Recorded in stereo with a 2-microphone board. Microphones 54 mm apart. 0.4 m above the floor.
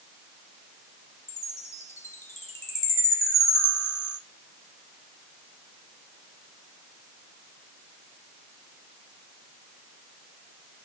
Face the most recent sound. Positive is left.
turn(degrees=50)  # may be behind; listen again after turning